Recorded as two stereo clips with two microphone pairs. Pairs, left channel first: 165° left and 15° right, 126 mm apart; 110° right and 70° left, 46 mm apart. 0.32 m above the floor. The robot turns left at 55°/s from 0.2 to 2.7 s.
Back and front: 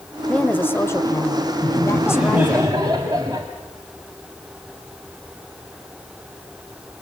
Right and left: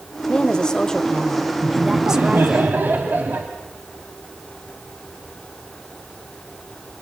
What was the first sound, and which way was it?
A woman speaking, 130° right.